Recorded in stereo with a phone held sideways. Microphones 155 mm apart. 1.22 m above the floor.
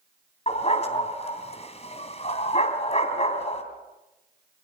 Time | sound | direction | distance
0.5 | a dog barking | 45° left (ahead or behind) | 3 m